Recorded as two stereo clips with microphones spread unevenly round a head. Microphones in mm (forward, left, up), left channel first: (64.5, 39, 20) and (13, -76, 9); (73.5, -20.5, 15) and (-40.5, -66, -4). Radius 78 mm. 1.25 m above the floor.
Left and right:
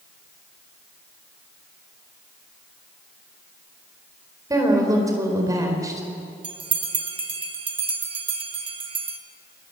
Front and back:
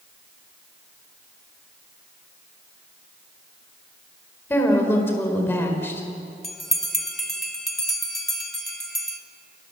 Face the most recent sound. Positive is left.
turn(degrees=-65)